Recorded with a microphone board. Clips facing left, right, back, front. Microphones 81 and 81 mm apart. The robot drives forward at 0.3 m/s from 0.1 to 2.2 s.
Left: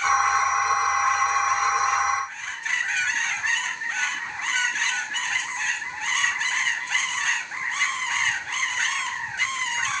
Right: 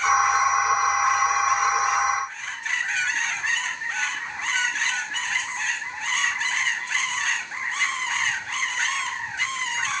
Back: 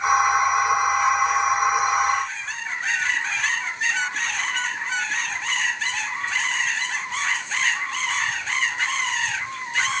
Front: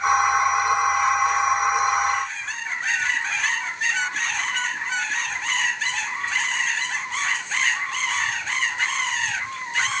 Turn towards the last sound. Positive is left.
No sound to turn to.